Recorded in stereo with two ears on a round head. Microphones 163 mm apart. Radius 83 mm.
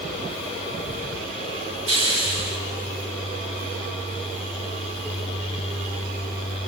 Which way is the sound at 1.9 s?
90° right.